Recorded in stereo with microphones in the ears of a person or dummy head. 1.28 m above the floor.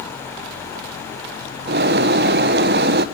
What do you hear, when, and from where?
1.7 s a bird: 50° right (ahead or behind), 1.0 m